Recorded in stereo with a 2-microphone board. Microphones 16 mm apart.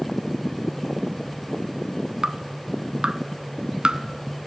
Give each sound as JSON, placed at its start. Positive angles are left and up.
{"t": 2.2, "sound": "dripping", "side_deg": -65, "distance_m": 0.8}